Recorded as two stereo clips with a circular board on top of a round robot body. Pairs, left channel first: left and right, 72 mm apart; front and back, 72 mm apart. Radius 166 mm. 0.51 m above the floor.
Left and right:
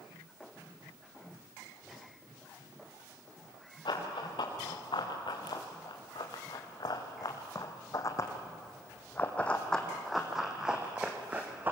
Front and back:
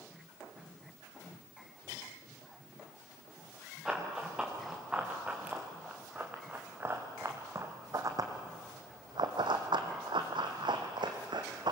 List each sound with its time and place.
3.9 s running footsteps: 95° left, 4 m; by 11.7 s 155° right, 2.5 m